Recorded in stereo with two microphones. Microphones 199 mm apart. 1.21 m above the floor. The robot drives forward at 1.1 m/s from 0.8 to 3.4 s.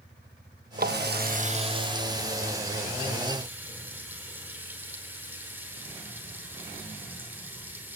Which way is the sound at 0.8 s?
50° right (ahead or behind).